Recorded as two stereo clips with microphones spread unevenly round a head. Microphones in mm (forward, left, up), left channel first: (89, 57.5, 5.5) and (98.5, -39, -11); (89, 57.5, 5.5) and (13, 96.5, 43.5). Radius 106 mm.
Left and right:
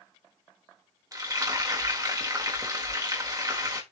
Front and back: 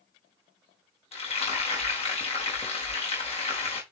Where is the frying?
30° right, 4 m.